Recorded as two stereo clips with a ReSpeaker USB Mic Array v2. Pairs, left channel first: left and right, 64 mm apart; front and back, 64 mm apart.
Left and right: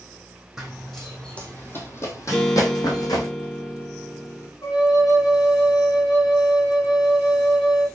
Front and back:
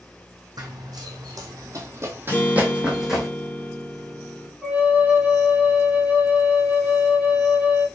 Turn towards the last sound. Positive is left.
turn(degrees=105)